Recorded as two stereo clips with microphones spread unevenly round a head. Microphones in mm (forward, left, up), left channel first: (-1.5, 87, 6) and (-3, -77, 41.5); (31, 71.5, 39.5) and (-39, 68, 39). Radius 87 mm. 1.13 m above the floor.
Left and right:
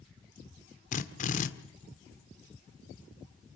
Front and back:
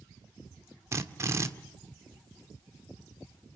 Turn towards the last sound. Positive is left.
turn(degrees=135)